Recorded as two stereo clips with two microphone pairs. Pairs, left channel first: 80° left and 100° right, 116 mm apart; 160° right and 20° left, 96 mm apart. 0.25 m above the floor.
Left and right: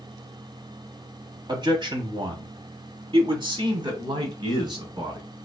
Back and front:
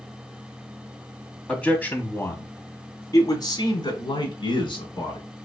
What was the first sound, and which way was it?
A man speaking, 85° right.